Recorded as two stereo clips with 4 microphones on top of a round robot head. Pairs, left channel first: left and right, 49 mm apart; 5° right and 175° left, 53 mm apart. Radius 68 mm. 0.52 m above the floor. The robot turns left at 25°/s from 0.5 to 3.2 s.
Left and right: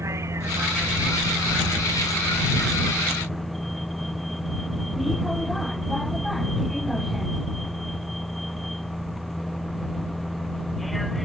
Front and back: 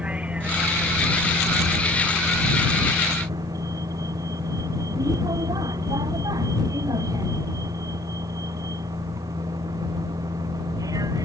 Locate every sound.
0.0 s a vehicle: 115° right; by 11.2 s straight behind